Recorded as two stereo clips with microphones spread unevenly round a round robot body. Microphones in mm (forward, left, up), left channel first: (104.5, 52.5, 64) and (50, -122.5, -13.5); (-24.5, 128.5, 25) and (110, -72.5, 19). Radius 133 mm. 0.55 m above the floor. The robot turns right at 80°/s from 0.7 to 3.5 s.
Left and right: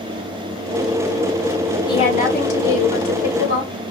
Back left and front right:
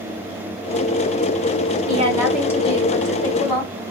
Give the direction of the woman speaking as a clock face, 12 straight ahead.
12 o'clock.